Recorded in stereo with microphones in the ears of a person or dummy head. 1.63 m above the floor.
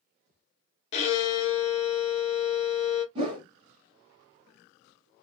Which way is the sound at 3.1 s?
35° right (ahead or behind).